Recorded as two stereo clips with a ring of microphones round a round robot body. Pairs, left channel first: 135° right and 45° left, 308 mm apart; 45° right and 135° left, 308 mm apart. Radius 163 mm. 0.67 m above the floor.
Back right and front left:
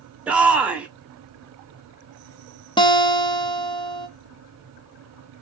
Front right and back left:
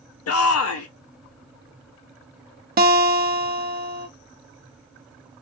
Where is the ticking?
No ticking in this recording.